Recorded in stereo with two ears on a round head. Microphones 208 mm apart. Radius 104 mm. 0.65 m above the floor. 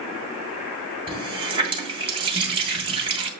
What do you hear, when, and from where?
1.1 s a running tap: 25° right (ahead or behind), 2.5 m